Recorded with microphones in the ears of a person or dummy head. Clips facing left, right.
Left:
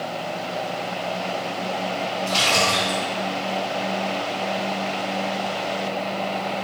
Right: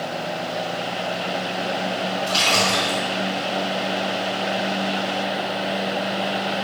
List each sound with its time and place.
2.3 s a splash: 5° right (ahead or behind), 2.5 m